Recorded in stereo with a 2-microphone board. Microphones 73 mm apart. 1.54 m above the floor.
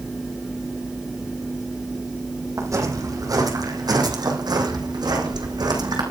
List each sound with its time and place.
2.6 s footsteps: 45° right (ahead or behind), 4 m; by 6.0 s 65° right (ahead or behind), 5.5 m